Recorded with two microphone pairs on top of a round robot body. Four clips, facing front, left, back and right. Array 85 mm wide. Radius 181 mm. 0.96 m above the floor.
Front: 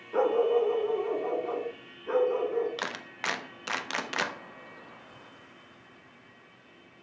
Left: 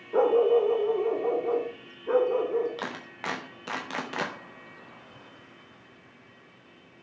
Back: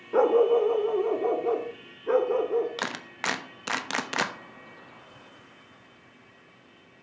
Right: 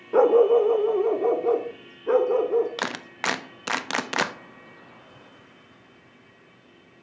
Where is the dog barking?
120° right, 0.6 m.